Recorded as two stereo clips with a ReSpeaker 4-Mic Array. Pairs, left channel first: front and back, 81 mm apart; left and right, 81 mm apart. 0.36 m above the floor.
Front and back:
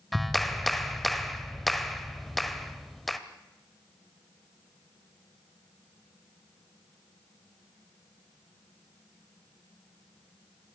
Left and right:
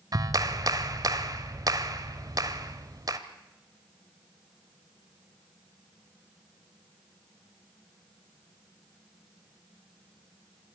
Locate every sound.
0.1 s a clap: 85° right, 1.2 m